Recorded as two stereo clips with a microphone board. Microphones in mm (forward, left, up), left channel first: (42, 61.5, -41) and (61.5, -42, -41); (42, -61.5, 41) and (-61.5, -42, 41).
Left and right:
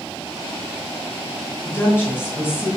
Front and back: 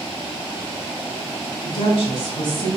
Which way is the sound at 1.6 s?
5° right.